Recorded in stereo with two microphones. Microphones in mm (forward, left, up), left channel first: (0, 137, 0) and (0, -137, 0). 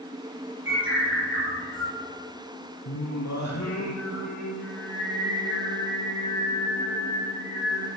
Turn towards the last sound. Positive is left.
turn(degrees=90)